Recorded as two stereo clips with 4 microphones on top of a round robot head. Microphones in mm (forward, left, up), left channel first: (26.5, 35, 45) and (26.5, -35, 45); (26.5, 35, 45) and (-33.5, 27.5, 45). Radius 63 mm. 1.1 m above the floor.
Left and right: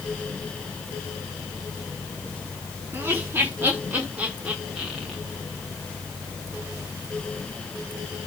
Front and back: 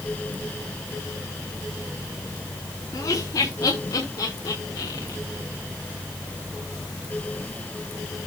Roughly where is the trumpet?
I don't hear a trumpet.